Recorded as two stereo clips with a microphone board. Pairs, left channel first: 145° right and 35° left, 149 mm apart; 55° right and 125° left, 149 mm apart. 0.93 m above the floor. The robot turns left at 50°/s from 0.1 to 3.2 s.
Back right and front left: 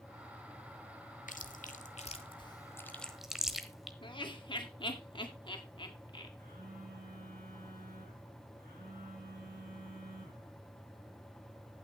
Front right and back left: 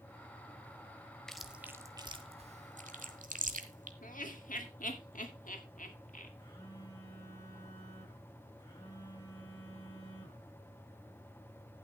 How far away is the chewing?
About 1.1 m.